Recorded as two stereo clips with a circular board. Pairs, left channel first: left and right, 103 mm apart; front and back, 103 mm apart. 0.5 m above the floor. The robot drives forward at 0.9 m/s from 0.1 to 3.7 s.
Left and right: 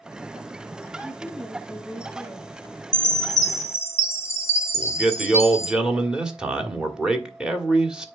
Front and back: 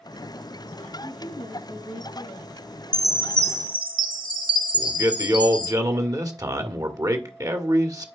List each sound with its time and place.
1.0 s a woman speaking: 15° right, 4 m; by 2.5 s 20° right, 3 m
2.9 s a chime: 75° left, 0.6 m; by 5.7 s 145° left, 0.8 m
4.7 s a man speaking: 165° right, 1.4 m